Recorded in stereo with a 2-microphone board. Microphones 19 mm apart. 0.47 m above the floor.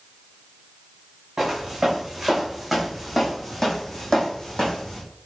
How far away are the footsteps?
About 2.0 m.